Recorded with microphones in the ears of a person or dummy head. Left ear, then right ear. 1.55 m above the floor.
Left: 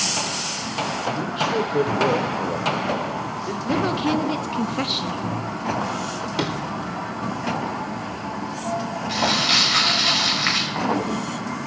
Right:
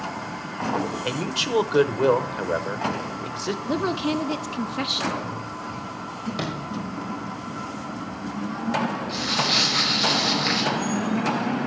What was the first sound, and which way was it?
A man speaking, 40° right (ahead or behind).